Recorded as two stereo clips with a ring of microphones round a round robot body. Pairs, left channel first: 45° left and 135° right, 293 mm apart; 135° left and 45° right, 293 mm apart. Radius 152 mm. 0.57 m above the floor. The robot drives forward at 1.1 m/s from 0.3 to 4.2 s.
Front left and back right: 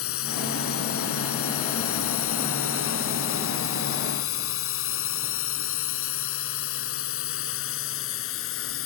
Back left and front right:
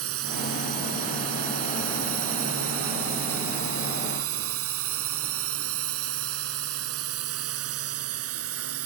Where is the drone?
Straight ahead.